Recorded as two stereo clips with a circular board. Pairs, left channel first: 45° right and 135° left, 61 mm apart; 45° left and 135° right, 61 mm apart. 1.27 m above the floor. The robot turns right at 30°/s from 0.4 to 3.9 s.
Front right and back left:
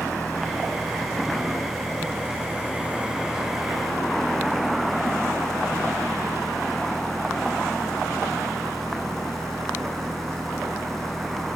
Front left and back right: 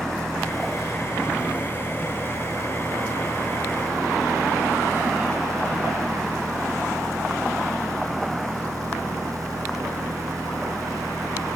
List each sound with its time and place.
0.0 s an engine running: 125° left, 6 m; by 11.6 s 130° right, 6 m